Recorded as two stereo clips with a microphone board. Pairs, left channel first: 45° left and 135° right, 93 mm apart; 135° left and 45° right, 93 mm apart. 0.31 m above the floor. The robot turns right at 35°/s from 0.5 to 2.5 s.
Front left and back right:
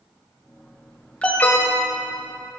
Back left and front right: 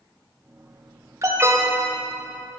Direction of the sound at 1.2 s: 25° right.